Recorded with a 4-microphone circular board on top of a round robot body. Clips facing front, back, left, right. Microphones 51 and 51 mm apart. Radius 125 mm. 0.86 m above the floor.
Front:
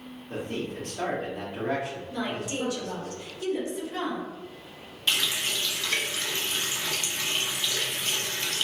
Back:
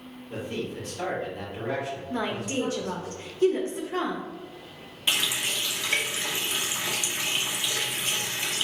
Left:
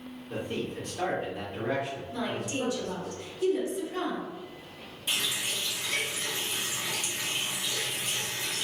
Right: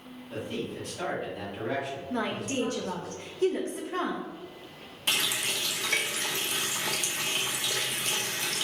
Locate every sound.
0.3 s a man speaking: 35° left, 1.7 m
2.1 s a woman speaking: 130° right, 0.7 m
5.1 s a running tap: 105° right, 0.7 m